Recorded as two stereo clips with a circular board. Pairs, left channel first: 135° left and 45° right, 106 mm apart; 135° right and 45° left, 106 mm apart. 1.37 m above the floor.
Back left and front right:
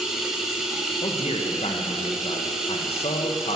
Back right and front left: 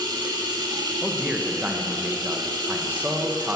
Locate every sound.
0.0 s running water: 40° left, 1.5 m
1.0 s a man speaking: 120° left, 1.2 m